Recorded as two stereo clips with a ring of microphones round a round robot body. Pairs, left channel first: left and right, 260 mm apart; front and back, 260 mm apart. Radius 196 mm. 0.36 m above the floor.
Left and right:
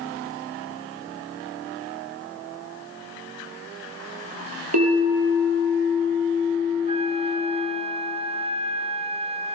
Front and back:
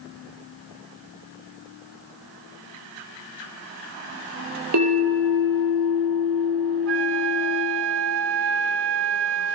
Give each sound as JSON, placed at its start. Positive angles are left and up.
{"t": 4.7, "sound": "a bell", "azimuth_deg": -135, "distance_m": 6.0}
{"t": 6.9, "sound": "a flute", "azimuth_deg": -155, "distance_m": 0.5}